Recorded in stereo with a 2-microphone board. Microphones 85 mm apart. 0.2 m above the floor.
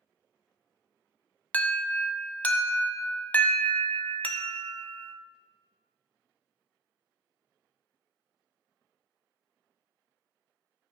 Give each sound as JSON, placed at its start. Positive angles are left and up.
{"t": 1.5, "sound": "an alarm", "side_deg": 20, "distance_m": 0.8}